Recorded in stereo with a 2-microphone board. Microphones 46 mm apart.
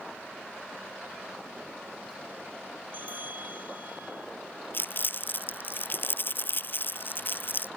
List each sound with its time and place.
2.9 s a bell: 45° right (ahead or behind)
4.7 s crumpling: 50° left (ahead or behind)